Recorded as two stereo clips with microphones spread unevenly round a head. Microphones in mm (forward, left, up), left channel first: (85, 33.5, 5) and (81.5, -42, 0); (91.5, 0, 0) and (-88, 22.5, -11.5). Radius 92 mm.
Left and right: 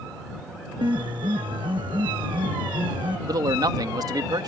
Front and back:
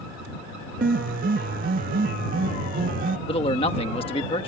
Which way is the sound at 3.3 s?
70° right.